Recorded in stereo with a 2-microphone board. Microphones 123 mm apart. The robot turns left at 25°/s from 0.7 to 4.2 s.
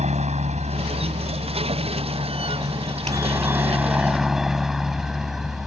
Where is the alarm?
I don't hear an alarm.